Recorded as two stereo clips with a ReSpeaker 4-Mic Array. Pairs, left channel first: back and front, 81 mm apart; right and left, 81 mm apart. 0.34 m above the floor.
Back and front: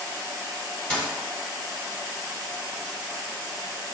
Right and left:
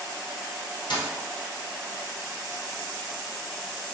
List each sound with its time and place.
0.9 s a dropped coin: 105° right, 1.6 m